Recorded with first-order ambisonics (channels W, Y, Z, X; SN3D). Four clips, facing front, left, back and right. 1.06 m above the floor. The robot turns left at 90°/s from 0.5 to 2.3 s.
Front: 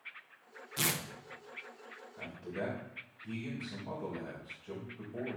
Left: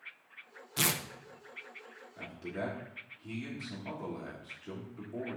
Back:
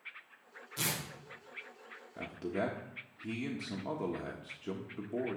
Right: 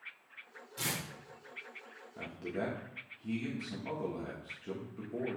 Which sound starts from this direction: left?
Tearing paper, at 0.8 s.